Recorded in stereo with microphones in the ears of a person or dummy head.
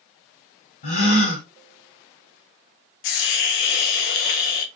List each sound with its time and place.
0.8 s a gasp: 35° left (ahead or behind), 1.4 m
3.0 s a hiss: 60° left (ahead or behind), 0.6 m